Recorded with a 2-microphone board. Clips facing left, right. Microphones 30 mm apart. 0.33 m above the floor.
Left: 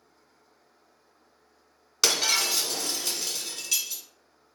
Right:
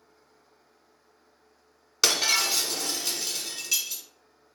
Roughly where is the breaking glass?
Centre.